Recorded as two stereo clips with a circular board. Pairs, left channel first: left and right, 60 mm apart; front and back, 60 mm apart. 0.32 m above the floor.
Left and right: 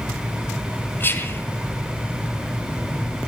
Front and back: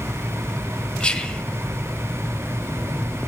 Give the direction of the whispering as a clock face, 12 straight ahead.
10 o'clock.